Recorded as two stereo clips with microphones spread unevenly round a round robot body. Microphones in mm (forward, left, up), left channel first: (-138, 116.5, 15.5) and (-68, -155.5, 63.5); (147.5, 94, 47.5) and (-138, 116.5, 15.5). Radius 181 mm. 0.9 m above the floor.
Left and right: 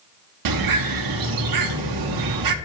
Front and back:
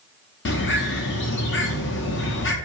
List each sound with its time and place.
0.5 s a bird: 65° right, 0.8 m